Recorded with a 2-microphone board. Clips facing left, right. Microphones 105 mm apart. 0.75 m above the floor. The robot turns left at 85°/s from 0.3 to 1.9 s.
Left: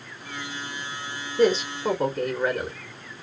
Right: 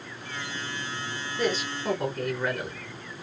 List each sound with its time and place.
1.4 s a man speaking: 95° left, 1.0 m; by 2.8 s 50° left, 1.0 m